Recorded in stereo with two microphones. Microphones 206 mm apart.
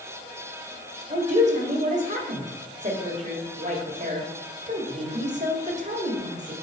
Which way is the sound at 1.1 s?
35° right (ahead or behind).